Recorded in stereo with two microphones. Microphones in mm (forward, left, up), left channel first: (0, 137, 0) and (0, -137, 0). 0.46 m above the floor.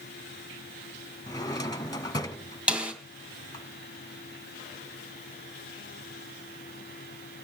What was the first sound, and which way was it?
A drawer, 15° left (ahead or behind).